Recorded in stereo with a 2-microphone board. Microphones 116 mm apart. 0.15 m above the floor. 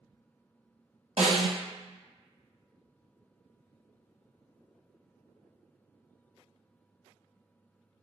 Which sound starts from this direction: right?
A snare drum, at 1.2 s.